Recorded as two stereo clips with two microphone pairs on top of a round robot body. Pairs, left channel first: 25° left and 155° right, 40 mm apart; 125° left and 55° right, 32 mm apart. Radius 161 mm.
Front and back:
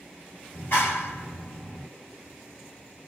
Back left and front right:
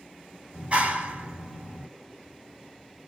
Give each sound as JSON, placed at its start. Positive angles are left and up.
{"t": 0.5, "sound": "a clap", "azimuth_deg": -5, "distance_m": 1.8}